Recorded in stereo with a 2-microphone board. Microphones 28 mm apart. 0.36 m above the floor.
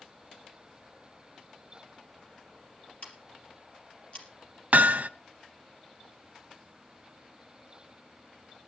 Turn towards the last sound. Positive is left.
turn(degrees=-70)  # may be behind; listen again after turning